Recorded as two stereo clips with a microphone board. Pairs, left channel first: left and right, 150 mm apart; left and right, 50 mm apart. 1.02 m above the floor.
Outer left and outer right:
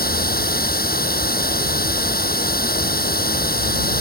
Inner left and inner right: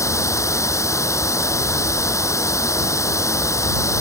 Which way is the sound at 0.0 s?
85° left.